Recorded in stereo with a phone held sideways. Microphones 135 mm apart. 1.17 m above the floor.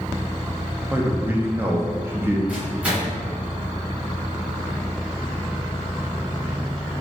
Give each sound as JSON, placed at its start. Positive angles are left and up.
{"t": 0.9, "sound": "a man speaking", "side_deg": -15, "distance_m": 0.6}
{"t": 2.5, "sound": "a microwave", "side_deg": -10, "distance_m": 1.2}